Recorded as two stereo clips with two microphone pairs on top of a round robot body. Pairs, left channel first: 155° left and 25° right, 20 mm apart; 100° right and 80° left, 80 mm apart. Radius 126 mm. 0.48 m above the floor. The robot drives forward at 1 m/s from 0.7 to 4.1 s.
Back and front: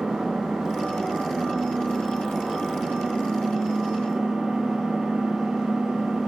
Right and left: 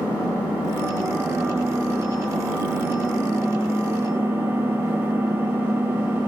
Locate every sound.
0.0 s an engine running: 10° left, 8 m; by 6.3 s 20° left, 5 m